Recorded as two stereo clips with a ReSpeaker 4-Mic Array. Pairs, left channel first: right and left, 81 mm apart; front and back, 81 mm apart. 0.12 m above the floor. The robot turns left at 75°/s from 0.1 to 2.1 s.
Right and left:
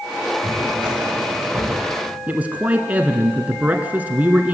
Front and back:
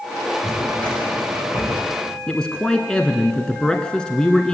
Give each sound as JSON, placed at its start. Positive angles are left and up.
{"t": 0.4, "sound": "a drawer", "azimuth_deg": 100, "distance_m": 10.0}
{"t": 2.3, "sound": "a man speaking", "azimuth_deg": 60, "distance_m": 1.1}